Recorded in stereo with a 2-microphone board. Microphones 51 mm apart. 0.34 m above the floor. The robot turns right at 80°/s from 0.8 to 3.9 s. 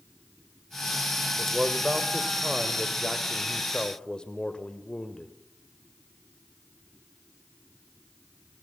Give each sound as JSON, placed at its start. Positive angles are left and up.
{"t": 1.4, "sound": "a man speaking", "side_deg": -10, "distance_m": 1.5}